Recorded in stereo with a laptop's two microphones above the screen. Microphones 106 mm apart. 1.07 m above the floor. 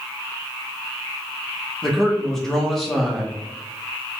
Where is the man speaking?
5° left (ahead or behind), 1.1 m.